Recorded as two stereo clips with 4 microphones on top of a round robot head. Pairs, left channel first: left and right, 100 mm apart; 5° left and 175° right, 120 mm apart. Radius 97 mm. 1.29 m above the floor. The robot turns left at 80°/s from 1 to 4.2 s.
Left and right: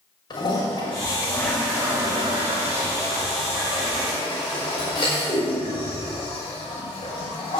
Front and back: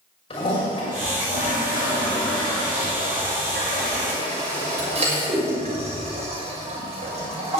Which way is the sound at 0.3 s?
40° left.